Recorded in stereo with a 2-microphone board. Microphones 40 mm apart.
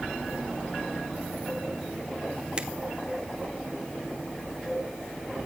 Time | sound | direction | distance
2.6 | a finger snap | 20° right (ahead or behind) | 3 m